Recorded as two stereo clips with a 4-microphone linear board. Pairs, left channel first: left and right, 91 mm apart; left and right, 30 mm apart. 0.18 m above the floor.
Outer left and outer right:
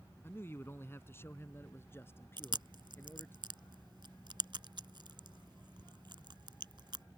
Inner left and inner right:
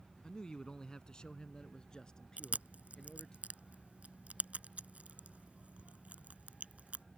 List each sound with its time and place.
0.2 s a man speaking: 25° left (ahead or behind)
2.4 s chewing: 60° right (ahead or behind)